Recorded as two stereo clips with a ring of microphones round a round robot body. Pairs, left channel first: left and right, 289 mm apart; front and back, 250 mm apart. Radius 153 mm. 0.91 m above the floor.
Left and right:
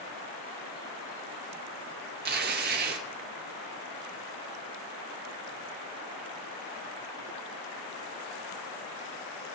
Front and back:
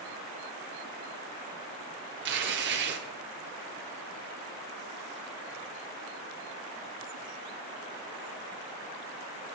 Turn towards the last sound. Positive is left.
turn(degrees=-140)